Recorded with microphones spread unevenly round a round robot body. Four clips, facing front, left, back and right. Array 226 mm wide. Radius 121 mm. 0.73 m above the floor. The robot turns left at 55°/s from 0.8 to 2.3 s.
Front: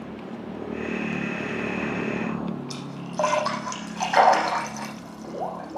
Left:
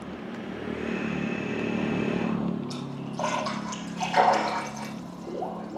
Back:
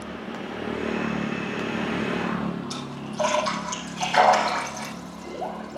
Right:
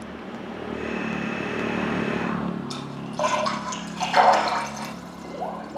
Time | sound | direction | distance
2.7 | a splash | 50° right | 6 m